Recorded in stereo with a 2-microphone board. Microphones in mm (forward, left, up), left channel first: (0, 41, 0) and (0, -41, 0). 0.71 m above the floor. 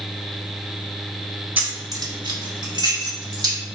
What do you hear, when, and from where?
1.6 s keys jangling: 20° right (ahead or behind), 0.7 m; by 3.6 s 55° right (ahead or behind), 1.6 m